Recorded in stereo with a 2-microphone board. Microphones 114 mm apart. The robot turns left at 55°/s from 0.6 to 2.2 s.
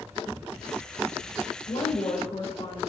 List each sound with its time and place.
1.7 s a woman speaking: 60° left (ahead or behind), 4 m; by 2.8 s 70° left (ahead or behind), 4 m